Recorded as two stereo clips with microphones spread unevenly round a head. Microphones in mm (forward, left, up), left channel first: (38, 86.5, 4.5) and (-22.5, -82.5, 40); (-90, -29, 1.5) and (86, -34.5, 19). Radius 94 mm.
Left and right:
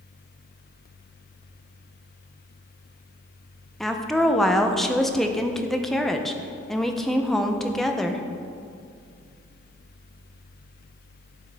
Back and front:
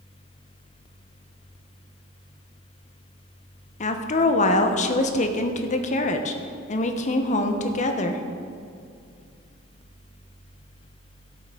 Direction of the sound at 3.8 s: 150° left.